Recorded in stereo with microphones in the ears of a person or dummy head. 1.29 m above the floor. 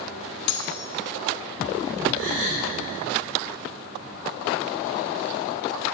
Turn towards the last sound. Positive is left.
turn(degrees=-85)